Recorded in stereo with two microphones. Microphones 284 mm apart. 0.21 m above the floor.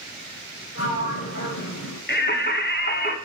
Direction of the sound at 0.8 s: 55° left (ahead or behind).